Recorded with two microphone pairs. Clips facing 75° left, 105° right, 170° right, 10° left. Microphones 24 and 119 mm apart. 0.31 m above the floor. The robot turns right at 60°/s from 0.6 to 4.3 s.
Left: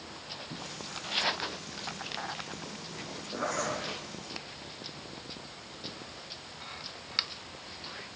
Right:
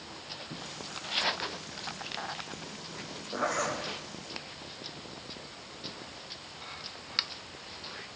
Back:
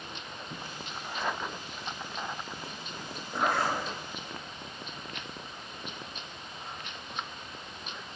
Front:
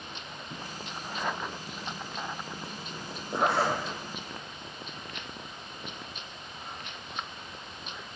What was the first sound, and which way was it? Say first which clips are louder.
A zipper: right 2 dB, front 2 dB; 20° right.